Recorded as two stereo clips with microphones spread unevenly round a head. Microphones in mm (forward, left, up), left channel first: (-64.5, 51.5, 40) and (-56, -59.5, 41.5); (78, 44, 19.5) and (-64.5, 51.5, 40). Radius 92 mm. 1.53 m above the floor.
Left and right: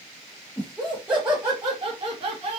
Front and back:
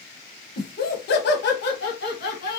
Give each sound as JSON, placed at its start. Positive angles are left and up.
{"t": 0.6, "sound": "laughter", "azimuth_deg": 15, "distance_m": 1.1}